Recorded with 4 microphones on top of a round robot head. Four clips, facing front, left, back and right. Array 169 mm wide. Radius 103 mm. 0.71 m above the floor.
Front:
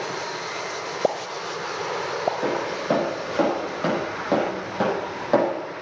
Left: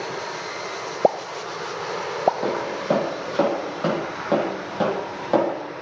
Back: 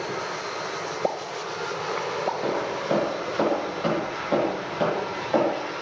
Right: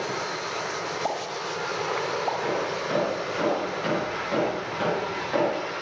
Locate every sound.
1.0 s a pop: 90° left, 0.8 m
2.4 s footsteps: 50° left, 8 m; by 5.5 s 40° left, 8.5 m